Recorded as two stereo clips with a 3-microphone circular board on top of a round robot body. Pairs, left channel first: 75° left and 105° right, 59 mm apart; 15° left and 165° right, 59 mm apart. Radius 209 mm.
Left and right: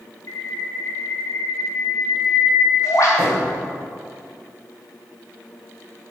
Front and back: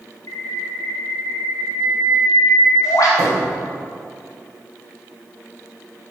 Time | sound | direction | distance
0.3 | a bird | 40° left | 1.2 m
3.2 | a thud | 135° right | 3.5 m